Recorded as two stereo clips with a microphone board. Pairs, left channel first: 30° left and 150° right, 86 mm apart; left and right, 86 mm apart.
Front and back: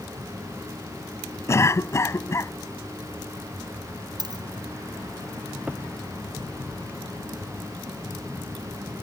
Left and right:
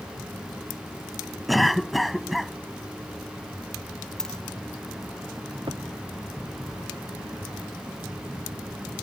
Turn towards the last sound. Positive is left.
turn(degrees=-75)